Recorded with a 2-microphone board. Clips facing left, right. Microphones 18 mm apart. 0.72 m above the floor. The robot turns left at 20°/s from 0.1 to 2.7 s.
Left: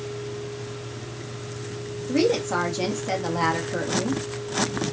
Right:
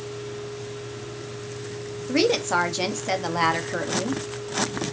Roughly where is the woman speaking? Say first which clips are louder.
Right 1 dB; right.